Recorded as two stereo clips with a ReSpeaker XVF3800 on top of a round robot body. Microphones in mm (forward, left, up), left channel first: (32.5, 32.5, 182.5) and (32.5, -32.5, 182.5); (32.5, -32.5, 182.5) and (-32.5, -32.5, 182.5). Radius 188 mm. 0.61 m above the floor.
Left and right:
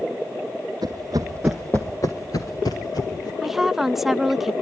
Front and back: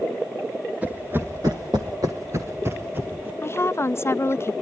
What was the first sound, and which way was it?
Running footsteps, 110° right.